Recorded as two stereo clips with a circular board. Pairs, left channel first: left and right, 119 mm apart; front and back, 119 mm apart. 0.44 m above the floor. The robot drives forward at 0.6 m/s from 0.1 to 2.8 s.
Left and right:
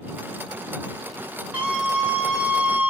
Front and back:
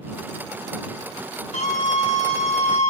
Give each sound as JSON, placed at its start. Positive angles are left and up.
{"t": 1.5, "sound": "a scream", "azimuth_deg": -10, "distance_m": 4.0}